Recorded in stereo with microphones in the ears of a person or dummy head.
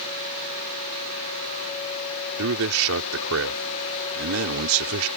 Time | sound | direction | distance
2.4 | a man speaking | 85° right | ?